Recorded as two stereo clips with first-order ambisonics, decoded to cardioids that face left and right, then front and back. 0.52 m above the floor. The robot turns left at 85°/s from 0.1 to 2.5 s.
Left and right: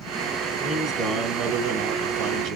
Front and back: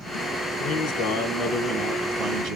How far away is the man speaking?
About 2 m.